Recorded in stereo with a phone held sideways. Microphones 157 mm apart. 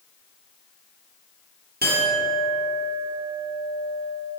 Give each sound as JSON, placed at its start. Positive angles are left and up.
{"t": 1.8, "sound": "a clink", "side_deg": -80, "distance_m": 1.5}